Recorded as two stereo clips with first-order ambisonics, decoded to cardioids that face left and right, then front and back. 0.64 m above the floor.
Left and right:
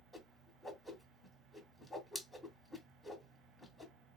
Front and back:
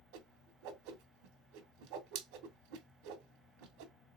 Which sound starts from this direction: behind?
A whoosh, at 0.1 s.